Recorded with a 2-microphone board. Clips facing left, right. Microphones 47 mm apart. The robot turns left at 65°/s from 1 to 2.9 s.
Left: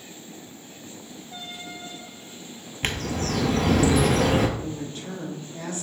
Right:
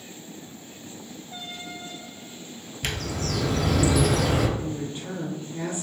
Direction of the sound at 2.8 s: 40° left (ahead or behind).